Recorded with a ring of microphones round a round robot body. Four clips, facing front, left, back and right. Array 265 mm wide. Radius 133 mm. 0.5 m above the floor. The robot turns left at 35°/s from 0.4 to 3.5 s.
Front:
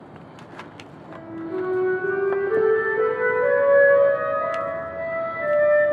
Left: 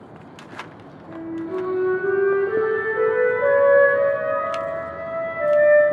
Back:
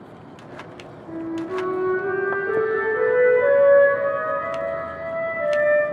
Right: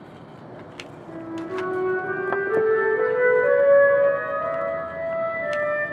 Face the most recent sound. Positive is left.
turn(degrees=125)